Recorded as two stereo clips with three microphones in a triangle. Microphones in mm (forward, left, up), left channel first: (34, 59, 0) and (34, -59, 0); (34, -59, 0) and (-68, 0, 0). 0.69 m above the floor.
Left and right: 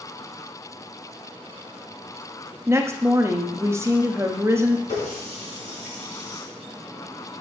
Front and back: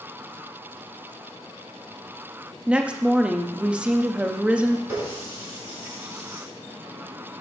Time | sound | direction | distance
2.7 | a woman speaking | 135° right | 0.7 m
4.9 | a running tap | 80° left | 4 m